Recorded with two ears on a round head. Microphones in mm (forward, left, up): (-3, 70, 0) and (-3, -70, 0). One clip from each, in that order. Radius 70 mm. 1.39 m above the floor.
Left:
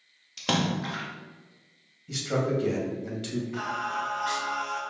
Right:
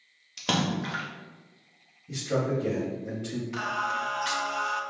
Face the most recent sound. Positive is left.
turn(degrees=-75)  # may be behind; listen again after turning